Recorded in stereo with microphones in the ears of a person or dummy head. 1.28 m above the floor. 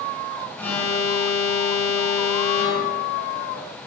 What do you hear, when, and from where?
0.6 s an alarm: 5° left (ahead or behind), 6 m